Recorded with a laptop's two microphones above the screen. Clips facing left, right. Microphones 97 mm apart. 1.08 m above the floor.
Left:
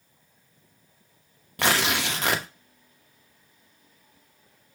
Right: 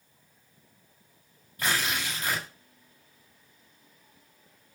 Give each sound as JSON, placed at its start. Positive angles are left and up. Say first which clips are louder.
{"t": 1.6, "sound": "tearing paper", "louder": "left 5 dB", "side_deg": 80, "distance_m": 0.9}